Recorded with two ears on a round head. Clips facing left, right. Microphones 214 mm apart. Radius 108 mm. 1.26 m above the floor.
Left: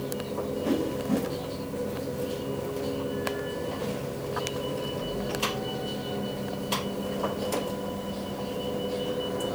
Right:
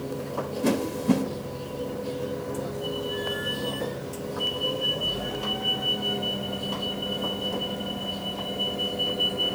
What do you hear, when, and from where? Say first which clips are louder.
0.6 s a whoosh: right 5 dB; 80° right, 3.5 m